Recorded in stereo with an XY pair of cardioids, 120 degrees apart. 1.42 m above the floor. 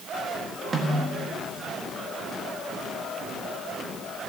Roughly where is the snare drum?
Ahead right.